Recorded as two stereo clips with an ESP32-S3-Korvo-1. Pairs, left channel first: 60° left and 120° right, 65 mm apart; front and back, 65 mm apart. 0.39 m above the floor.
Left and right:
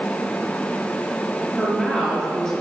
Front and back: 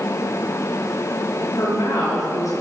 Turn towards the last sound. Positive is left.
turn(degrees=-20)